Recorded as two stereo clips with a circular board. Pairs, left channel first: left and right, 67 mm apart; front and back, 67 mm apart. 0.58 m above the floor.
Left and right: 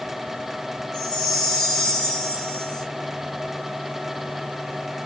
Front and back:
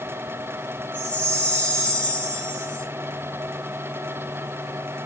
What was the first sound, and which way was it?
A chime, 75° left.